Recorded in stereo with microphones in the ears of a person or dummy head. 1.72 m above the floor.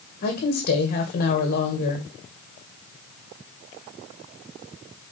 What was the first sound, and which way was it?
A woman speaking, 55° left (ahead or behind).